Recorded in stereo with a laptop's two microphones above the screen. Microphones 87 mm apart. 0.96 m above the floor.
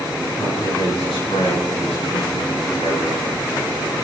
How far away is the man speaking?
About 10 m.